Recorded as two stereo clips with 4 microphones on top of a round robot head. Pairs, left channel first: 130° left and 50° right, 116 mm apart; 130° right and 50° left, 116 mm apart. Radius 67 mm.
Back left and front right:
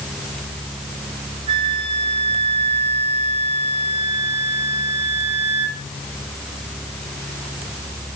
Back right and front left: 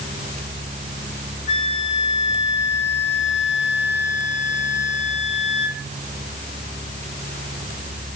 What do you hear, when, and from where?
1.5 s a flute: 95° right, 2.5 m